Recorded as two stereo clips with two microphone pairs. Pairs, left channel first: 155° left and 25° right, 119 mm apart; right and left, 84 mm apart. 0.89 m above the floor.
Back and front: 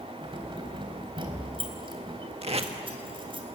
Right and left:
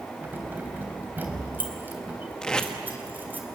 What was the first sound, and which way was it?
Keys jangling, 20° left.